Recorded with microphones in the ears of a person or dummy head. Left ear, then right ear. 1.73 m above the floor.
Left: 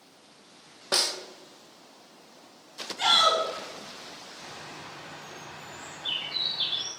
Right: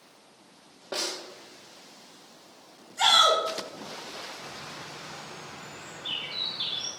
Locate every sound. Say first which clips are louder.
0.9 s a snare drum: left 6 dB; 60° left (ahead or behind), 1.3 m
3.0 s a shout: right 2 dB; 30° right (ahead or behind), 2.5 m
4.4 s a bird: right 1 dB; 10° left (ahead or behind), 5.5 m